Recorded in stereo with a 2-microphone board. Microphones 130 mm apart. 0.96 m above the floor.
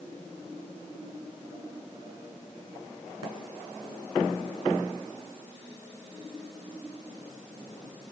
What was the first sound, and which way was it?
Only background noise.